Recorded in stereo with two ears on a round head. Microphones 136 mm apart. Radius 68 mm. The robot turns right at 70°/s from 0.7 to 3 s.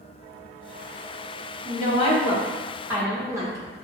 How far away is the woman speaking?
About 1.1 m.